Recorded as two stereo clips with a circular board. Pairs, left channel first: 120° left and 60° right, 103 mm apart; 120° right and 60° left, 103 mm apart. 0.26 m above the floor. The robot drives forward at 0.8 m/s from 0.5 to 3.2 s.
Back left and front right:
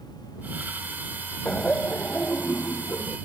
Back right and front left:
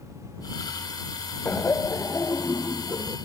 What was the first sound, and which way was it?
Laughter, 165° right.